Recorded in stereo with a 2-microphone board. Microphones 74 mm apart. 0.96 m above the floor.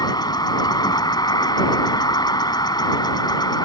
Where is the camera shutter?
I don't hear a camera shutter.